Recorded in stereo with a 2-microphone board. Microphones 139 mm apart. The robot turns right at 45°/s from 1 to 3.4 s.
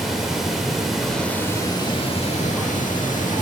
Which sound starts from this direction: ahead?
Running water, at 0.0 s.